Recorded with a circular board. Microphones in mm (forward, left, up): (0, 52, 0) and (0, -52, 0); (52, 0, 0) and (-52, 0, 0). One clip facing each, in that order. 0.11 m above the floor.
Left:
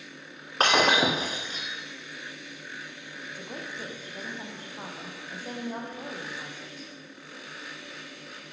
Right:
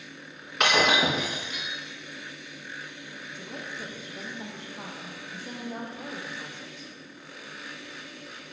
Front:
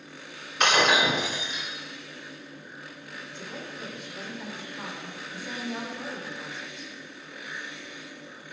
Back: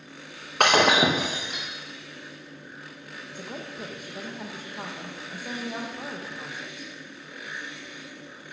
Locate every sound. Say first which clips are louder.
0.6 s breaking glass: left 1 dB, back 3 dB; 145° left, 4 m
3.3 s a woman speaking: left 1 dB, back 3 dB; 140° left, 4 m